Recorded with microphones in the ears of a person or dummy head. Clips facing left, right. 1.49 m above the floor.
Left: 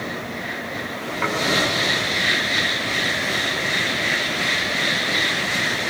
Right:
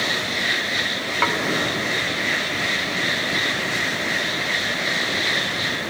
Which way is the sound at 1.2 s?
50° right (ahead or behind).